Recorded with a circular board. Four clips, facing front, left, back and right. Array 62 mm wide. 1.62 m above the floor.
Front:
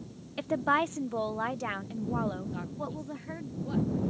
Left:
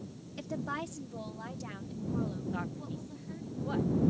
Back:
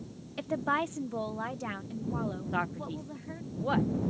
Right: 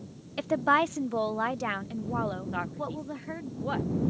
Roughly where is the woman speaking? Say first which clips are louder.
Right 13 dB, front 3 dB; right.